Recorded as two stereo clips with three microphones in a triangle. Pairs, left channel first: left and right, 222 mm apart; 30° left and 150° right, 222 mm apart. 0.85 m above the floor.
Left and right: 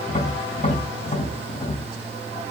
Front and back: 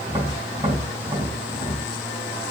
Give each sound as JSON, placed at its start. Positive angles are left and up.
{"t": 0.1, "sound": "tapping", "azimuth_deg": 140, "distance_m": 3.0}